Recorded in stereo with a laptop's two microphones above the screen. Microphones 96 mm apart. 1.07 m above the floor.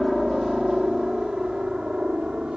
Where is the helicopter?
Centre (ahead or behind); by 2.6 s 10° right (ahead or behind).